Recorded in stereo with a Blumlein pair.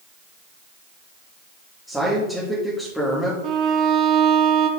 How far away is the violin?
About 0.7 m.